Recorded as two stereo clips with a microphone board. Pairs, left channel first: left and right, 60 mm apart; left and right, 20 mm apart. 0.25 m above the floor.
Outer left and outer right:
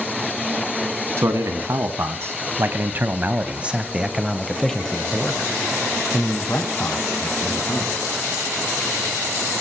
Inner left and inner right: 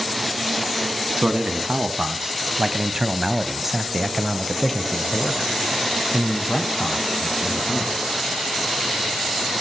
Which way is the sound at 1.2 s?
55° right (ahead or behind).